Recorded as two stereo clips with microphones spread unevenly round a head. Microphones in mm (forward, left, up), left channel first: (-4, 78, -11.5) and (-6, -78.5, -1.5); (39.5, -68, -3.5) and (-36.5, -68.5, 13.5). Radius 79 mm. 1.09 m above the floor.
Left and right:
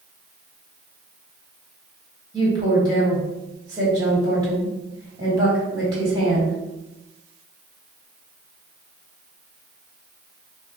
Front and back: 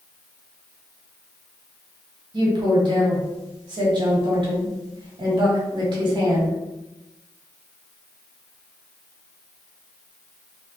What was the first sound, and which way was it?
A woman speaking, 160° right.